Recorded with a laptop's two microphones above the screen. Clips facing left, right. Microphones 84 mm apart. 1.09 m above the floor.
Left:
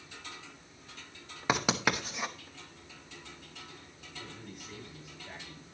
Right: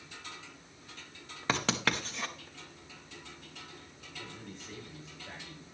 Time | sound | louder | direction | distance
1.5 | writing | left 2 dB | 10° left (ahead or behind) | 1.0 m
4.2 | a man speaking | even | 30° right (ahead or behind) | 7.5 m